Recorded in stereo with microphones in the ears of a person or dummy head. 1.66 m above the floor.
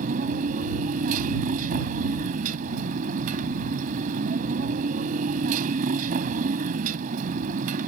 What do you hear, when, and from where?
0.0 s a motorcycle: 45° right (ahead or behind)